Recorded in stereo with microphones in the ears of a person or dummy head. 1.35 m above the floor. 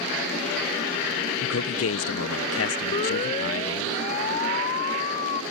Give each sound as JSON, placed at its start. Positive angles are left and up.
{"t": 1.4, "sound": "a man speaking", "side_deg": 75}
{"t": 2.9, "sound": "a siren", "side_deg": 40}